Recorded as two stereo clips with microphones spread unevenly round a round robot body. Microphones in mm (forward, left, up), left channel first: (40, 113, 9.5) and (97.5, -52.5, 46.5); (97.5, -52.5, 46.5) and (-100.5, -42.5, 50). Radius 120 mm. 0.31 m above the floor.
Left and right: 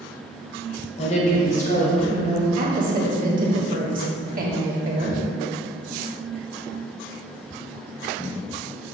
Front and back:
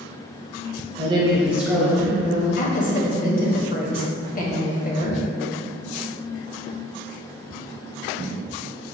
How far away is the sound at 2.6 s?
About 1.7 m.